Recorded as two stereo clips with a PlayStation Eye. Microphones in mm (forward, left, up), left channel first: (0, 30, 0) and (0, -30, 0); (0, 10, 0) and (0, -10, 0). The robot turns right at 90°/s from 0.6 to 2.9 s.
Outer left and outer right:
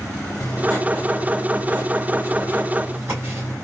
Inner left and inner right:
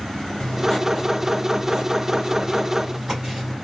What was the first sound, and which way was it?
Writing, 110° left.